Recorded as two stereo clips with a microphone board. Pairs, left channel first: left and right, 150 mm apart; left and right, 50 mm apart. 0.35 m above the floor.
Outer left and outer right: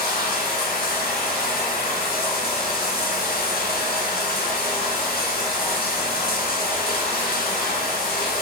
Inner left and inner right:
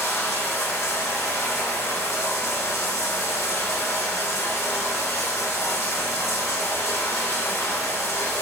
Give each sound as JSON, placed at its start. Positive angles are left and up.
{"t": 0.0, "sound": "running water", "side_deg": 90, "distance_m": 0.9}